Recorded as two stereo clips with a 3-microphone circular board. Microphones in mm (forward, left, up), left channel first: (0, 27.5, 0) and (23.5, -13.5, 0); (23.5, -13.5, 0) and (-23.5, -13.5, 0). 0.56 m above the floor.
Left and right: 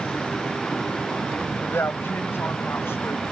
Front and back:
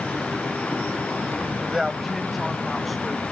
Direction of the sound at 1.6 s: 95° left.